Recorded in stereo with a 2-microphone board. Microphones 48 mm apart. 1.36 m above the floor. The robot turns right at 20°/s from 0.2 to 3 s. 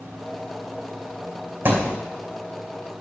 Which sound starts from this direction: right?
A thud, at 1.6 s.